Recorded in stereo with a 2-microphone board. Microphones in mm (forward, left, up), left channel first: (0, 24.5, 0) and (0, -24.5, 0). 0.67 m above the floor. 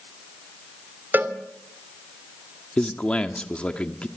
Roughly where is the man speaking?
Left.